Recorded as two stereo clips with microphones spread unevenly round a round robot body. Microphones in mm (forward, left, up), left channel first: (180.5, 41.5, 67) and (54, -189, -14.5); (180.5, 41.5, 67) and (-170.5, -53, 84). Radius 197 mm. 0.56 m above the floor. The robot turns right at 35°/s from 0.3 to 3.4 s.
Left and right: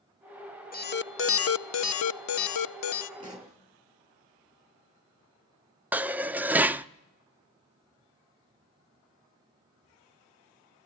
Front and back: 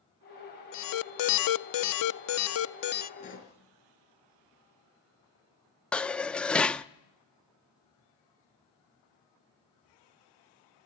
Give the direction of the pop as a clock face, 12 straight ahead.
2 o'clock.